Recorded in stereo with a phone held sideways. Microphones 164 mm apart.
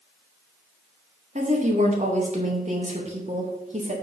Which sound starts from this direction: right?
A woman speaking, at 1.4 s.